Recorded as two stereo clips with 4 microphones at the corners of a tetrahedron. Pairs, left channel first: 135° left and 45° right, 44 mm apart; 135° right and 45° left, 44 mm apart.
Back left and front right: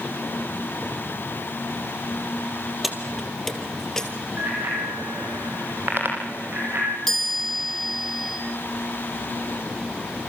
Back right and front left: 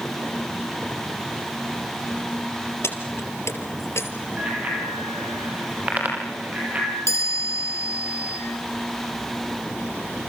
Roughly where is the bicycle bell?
Ahead.